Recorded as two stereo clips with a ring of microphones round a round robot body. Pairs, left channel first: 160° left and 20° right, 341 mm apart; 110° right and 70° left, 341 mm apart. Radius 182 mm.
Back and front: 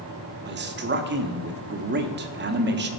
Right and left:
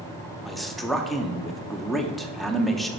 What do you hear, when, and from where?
0.5 s a man speaking: 25° right, 0.8 m